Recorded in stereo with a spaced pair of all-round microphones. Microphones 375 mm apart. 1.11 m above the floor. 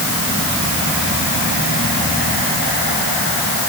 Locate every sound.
Only background noise.